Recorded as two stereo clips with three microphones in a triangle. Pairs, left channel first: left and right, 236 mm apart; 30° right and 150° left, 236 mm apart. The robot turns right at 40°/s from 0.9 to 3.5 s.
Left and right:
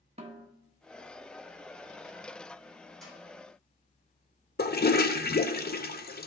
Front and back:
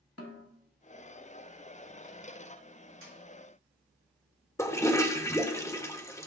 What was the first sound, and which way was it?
A snare drum, 25° right.